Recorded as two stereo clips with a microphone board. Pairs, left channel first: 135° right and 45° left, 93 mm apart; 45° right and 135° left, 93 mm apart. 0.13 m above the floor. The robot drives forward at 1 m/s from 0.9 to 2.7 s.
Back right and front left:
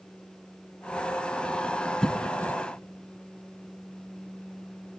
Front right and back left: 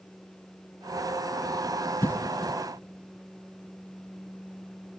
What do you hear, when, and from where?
2.0 s a cough: 55° right, 1.1 m; by 2.6 s 125° right, 1.1 m